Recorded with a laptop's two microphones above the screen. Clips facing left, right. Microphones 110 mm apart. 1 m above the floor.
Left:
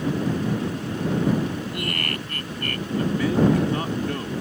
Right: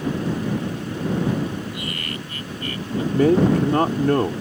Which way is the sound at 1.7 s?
55° left (ahead or behind).